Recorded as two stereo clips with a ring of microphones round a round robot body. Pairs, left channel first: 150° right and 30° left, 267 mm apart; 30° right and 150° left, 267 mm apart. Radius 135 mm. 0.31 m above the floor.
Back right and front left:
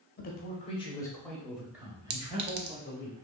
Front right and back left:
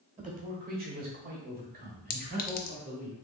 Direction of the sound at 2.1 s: 5° left.